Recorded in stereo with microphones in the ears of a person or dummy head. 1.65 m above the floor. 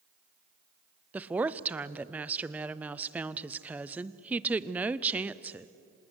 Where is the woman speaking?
10° right (ahead or behind), 0.6 m.